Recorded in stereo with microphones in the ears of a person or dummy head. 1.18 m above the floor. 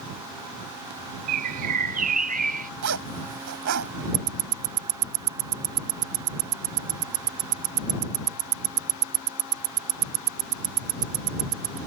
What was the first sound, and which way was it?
A bird, 45° right (ahead or behind).